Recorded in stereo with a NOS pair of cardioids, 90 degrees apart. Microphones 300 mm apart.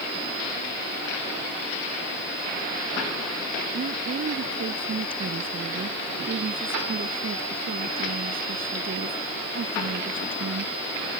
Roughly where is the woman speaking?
Ahead right.